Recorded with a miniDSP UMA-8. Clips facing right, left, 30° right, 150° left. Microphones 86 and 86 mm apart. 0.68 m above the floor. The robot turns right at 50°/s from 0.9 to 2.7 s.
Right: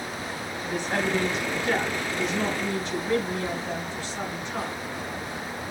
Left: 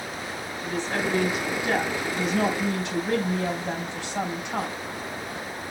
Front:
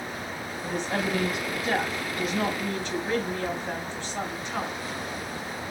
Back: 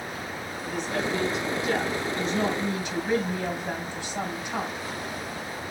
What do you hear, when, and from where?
0.6 s a woman speaking: 15° right, 3.5 m; by 4.8 s 75° left, 3.5 m